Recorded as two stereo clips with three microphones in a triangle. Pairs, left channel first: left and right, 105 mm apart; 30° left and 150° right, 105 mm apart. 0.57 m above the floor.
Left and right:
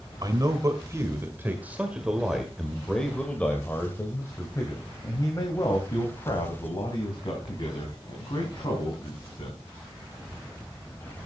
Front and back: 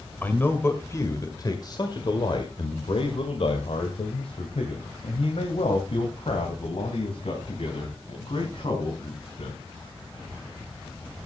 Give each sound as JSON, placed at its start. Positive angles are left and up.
{"t": 0.2, "sound": "a man speaking", "azimuth_deg": -40, "distance_m": 1.9}